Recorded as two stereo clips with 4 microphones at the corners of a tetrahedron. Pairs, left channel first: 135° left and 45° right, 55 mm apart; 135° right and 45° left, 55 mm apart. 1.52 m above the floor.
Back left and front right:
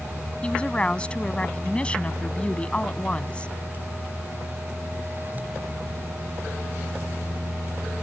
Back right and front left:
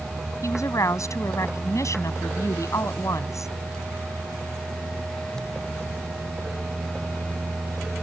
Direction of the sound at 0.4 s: 155° right.